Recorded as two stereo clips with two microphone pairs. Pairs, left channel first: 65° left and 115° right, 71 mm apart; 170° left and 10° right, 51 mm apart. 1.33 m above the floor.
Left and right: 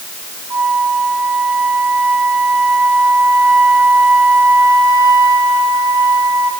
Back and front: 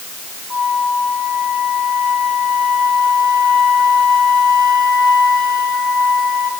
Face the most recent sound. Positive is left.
turn(degrees=-105)